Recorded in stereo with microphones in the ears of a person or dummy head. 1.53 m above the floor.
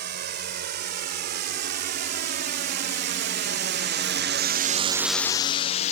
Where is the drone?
50° right (ahead or behind); by 5.9 s 35° left (ahead or behind).